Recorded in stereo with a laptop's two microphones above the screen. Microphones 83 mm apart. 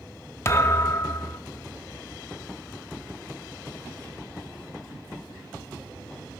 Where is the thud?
30° left (ahead or behind), 0.6 m.